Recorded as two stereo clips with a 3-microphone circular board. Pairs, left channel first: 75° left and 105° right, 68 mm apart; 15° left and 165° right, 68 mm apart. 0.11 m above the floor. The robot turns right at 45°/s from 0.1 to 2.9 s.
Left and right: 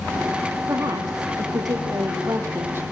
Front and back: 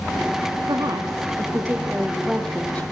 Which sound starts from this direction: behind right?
A woman speaking, at 0.7 s.